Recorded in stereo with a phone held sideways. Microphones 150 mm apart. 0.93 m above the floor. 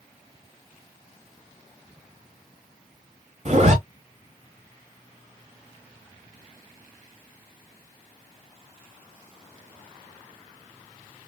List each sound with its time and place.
3.5 s a zipper: 50° right (ahead or behind), 1.5 m